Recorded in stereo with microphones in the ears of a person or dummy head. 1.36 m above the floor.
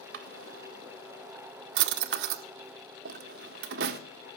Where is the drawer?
65° right (ahead or behind), 1.6 m.